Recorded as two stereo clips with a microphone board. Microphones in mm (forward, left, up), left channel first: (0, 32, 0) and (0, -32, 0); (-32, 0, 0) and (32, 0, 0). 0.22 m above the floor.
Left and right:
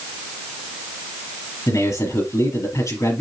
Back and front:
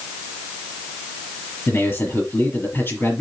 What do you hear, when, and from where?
1.7 s a man speaking: 125° left, 5 m